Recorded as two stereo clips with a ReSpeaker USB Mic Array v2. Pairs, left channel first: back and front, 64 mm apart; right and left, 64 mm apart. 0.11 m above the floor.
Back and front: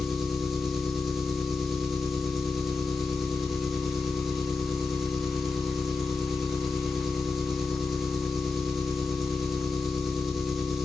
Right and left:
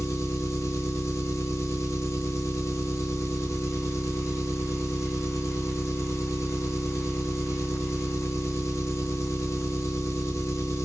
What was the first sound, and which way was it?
An engine running, 85° right.